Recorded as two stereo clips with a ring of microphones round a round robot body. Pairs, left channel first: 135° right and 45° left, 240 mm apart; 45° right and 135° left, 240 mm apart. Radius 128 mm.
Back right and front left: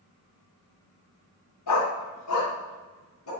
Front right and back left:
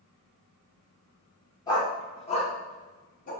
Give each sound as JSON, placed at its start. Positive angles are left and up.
{"t": 1.7, "sound": "a dog barking", "azimuth_deg": -120, "distance_m": 2.5}